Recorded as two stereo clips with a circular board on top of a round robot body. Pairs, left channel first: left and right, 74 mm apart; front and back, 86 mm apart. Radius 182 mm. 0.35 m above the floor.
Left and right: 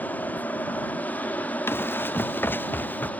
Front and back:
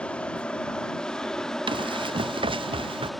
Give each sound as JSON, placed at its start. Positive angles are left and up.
{"t": 0.0, "sound": "an aircraft", "azimuth_deg": 60}
{"t": 1.7, "sound": "running footsteps", "azimuth_deg": 155}